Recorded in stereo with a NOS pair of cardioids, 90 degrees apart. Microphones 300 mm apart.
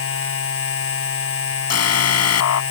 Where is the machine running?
50° left.